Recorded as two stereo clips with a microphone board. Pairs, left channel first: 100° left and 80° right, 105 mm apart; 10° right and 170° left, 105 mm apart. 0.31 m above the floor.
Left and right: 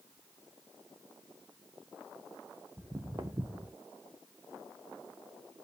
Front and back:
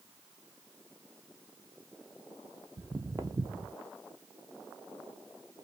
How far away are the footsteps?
About 0.5 m.